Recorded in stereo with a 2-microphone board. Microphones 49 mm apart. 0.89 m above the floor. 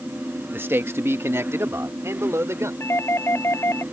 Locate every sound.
0.5 s a man speaking: 45° right (ahead or behind); by 2.7 s 70° right (ahead or behind)
2.8 s a doorbell: 65° left (ahead or behind)